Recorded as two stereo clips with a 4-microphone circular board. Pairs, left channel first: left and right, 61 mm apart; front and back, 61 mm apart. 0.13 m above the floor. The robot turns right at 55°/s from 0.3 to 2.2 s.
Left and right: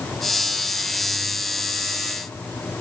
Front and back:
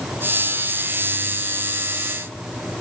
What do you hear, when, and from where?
Only background noise.